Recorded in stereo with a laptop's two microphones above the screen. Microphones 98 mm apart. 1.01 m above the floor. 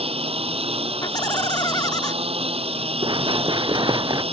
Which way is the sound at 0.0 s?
80° right.